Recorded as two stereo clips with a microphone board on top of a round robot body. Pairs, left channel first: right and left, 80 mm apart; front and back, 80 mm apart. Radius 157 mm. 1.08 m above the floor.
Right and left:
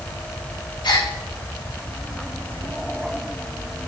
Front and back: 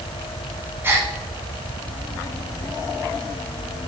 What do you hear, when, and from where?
0.8 s a gasp: 115° right, 1.6 m